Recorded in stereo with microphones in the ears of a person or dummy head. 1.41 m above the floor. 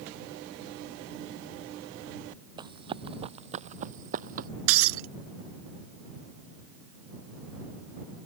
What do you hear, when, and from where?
2.6 s running footsteps: 25° right (ahead or behind); by 4.5 s 50° right (ahead or behind)
4.7 s breaking glass: 80° right